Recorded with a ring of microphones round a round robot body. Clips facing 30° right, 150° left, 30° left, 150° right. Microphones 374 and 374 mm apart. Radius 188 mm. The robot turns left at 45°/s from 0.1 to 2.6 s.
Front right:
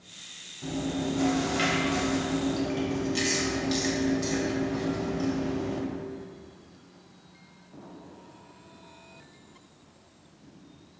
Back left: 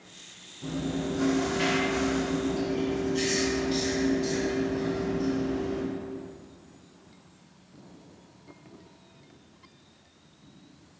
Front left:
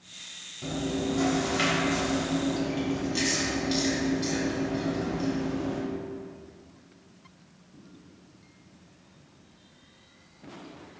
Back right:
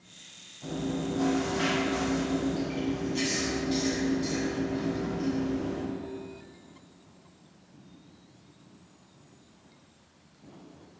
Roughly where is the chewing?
Ahead left.